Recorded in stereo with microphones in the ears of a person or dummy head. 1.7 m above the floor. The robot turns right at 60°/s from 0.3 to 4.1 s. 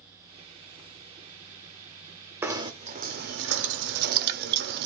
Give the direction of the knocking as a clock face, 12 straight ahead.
6 o'clock.